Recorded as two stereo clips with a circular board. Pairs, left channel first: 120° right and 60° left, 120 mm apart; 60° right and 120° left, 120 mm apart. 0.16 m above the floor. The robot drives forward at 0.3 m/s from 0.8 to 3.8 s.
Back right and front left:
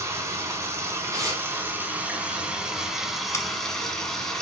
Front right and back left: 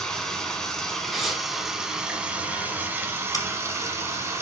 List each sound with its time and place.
0.0 s running water: 20° left, 1.0 m; by 4.4 s 160° left, 1.0 m
1.1 s tearing paper: 35° left, 1.4 m; by 1.4 s 40° left, 1.3 m
3.3 s scissors: 80° right, 0.8 m; by 3.5 s 85° right, 0.8 m